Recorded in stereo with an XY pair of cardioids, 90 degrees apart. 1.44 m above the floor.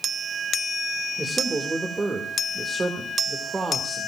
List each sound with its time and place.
1.2 s a man speaking: 30° right, 2.5 m